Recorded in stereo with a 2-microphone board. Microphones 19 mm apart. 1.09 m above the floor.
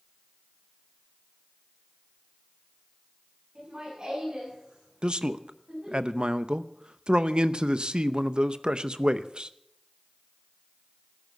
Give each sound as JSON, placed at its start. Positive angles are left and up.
{"t": 3.5, "sound": "laughter", "side_deg": -45, "distance_m": 9.0}
{"t": 5.0, "sound": "a man speaking", "side_deg": -55, "distance_m": 0.7}